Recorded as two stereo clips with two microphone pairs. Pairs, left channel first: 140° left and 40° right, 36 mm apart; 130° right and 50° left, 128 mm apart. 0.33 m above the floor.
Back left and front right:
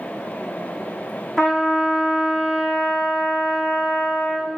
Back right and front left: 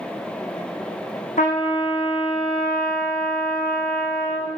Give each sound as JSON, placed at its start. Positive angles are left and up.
{"t": 1.4, "sound": "a trumpet", "azimuth_deg": -140, "distance_m": 4.5}